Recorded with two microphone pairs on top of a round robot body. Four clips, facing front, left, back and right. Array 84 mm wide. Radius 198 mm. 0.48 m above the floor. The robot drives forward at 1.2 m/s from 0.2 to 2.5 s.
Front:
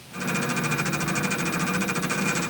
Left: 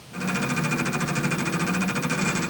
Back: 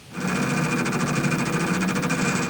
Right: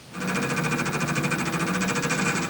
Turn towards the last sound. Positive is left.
No sound to turn to.